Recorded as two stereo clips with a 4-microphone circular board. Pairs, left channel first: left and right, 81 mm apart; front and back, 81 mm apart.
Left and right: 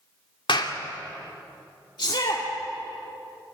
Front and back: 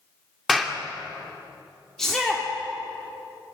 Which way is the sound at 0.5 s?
90° left.